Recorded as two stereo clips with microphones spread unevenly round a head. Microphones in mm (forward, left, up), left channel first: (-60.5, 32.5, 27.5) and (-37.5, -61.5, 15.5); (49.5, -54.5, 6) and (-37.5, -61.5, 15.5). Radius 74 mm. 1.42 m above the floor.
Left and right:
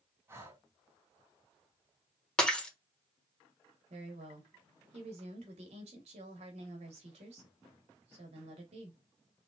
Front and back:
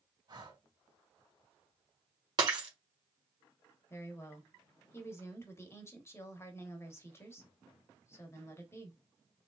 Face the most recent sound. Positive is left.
turn(degrees=-55)